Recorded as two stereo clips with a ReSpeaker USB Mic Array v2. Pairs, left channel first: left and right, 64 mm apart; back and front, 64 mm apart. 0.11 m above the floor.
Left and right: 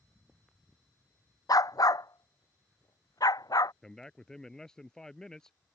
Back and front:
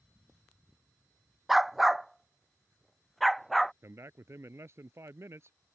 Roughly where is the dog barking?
Left.